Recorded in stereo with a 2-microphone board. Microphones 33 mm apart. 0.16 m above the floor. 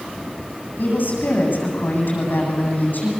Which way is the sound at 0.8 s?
65° left (ahead or behind).